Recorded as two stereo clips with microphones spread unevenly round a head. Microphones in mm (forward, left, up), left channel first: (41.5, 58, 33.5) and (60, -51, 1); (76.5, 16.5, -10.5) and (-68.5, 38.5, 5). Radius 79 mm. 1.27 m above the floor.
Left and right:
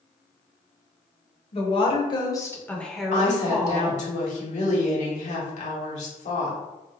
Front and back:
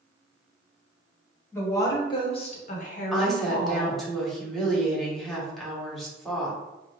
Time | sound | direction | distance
1.5 | a woman speaking | 60° left | 1.3 m
3.1 | a woman speaking | 80° left | 1.2 m